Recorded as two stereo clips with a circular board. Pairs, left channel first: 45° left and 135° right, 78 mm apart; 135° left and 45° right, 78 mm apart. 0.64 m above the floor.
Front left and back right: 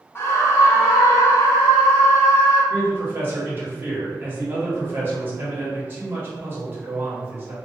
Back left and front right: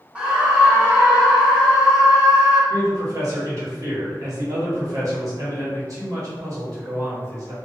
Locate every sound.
0.1 s a scream: 20° left, 0.6 m
2.7 s a man speaking: 80° right, 1.0 m